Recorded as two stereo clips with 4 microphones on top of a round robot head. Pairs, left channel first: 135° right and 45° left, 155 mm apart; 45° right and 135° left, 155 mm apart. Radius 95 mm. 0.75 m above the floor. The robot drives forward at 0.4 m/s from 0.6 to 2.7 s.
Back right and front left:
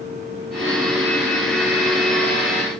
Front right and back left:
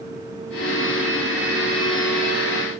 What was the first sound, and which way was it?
Only background noise.